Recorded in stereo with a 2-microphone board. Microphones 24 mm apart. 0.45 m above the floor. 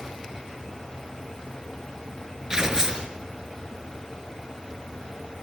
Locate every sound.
2.5 s tearing paper: 25° right (ahead or behind), 3.5 m